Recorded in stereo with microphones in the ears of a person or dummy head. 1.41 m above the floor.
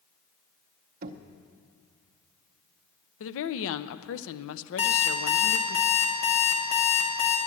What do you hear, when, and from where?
1.0 s knocking: 45° right (ahead or behind), 0.6 m
3.2 s a woman speaking: 75° left (ahead or behind), 0.6 m
4.8 s an alarm clock: 45° left (ahead or behind), 1.7 m